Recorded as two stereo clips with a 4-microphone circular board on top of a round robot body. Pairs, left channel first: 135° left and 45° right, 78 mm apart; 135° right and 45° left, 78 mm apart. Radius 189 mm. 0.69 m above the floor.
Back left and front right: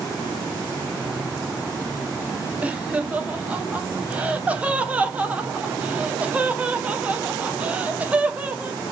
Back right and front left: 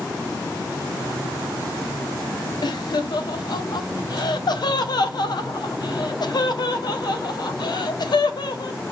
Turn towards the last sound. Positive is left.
turn(degrees=-115)